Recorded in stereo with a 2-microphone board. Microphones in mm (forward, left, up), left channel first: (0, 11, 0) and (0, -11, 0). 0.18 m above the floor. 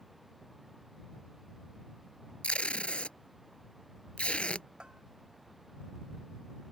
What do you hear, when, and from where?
2.4 s tape being pulled: 70° left (ahead or behind)
4.8 s a bell: 50° right (ahead or behind)